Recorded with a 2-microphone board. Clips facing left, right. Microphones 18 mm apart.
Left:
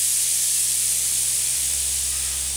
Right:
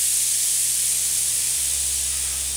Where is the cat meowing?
No cat meowing in this recording.